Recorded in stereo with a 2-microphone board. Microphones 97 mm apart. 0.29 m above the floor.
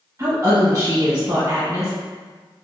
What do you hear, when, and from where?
0.2 s a woman speaking: 35° right (ahead or behind), 1.3 m